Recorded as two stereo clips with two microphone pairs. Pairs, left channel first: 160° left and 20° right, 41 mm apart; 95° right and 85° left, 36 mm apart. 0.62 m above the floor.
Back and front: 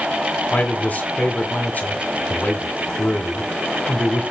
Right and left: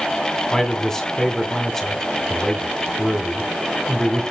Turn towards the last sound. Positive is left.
turn(degrees=-165)